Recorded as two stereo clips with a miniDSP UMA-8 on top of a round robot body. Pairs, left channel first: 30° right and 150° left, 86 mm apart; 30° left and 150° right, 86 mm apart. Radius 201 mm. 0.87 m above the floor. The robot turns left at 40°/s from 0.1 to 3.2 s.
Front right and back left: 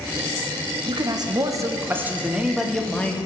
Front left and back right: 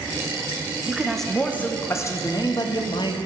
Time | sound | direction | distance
0.9 | a man speaking | 130° left | 1.0 m